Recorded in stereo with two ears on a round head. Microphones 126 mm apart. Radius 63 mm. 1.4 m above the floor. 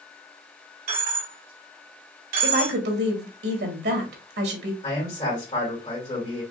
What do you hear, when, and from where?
0.9 s a dropped coin: 60° right (ahead or behind), 2.0 m
2.4 s a woman speaking: 80° right, 1.4 m
4.8 s a man speaking: 35° left (ahead or behind), 2.5 m